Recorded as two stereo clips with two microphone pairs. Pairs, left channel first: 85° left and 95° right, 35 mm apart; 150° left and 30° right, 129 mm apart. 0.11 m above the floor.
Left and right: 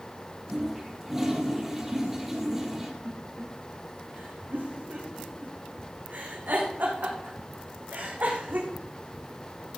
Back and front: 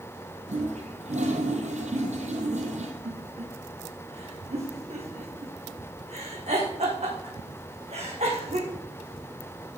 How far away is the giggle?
About 3.5 m.